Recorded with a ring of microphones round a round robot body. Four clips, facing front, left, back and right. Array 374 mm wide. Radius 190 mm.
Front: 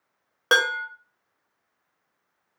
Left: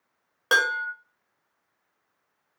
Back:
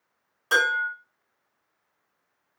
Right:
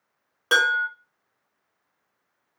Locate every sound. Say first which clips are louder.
0.5 s dishes clattering: right 3 dB, even; 10° left, 0.9 m